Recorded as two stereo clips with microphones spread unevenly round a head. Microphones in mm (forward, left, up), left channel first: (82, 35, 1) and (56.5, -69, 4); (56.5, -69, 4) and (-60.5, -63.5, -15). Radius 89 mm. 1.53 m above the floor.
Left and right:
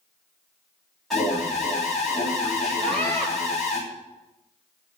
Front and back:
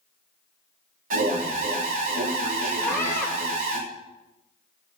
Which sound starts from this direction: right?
A scream, at 2.8 s.